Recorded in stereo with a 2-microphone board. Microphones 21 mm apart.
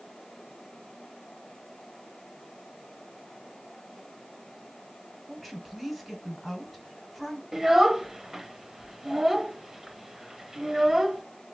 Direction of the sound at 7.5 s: 20° right (ahead or behind).